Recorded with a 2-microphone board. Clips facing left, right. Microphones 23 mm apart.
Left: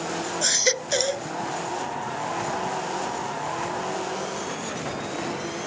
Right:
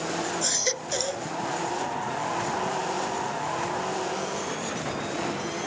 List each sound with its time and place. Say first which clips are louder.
0.4 s a baby crying: left 9 dB; 25° left (ahead or behind)